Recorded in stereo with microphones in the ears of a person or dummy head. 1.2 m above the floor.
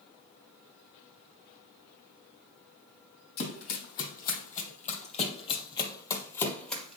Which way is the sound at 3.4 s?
65° left (ahead or behind).